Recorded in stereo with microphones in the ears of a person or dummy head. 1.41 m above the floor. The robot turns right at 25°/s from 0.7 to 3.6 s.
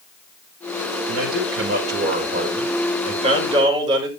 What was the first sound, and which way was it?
A man speaking, 90° right.